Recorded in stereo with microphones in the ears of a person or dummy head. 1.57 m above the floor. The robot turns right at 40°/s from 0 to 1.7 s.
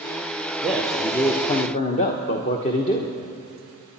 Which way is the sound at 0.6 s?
Straight ahead.